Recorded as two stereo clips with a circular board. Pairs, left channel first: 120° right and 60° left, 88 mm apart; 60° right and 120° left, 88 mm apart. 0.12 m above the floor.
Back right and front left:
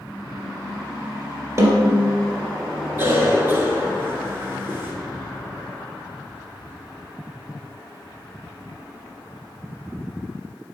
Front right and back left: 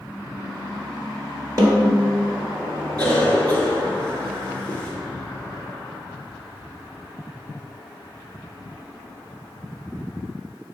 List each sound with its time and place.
1.6 s a snare drum: 90° left, 1.7 m
3.0 s a cough: 10° left, 1.8 m